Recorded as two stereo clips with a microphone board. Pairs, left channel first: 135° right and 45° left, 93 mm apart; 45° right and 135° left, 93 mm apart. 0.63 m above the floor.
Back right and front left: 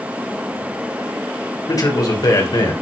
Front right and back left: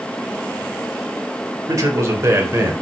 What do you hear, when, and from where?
1.7 s a man speaking: 175° right, 2.5 m; by 2.7 s 165° right, 3 m